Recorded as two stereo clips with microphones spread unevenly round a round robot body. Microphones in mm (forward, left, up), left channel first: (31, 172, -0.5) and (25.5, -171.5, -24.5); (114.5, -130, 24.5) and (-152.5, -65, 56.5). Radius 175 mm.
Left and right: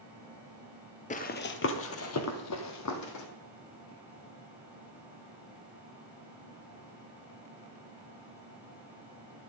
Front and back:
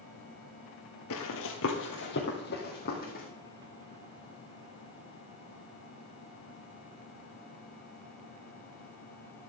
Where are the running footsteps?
30° left, 1.2 m; by 3.2 s 55° left, 2.5 m.